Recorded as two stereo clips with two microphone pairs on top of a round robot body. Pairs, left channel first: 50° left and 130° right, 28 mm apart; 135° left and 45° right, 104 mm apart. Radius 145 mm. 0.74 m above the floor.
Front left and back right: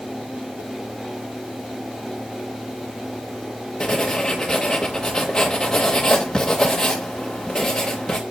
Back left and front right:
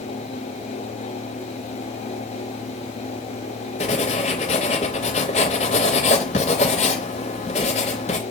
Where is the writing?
130° left, 0.5 m.